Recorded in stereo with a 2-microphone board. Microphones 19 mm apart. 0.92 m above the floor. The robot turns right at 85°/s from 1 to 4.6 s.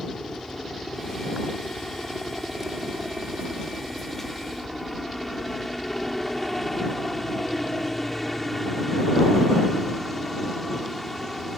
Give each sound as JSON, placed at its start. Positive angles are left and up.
{"t": 0.0, "sound": "a helicopter", "azimuth_deg": 60}